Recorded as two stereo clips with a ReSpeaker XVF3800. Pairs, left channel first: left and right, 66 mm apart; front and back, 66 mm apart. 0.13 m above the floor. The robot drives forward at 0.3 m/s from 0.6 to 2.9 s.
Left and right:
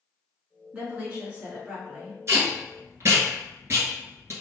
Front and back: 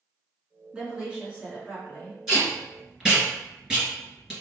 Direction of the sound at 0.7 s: 125° right.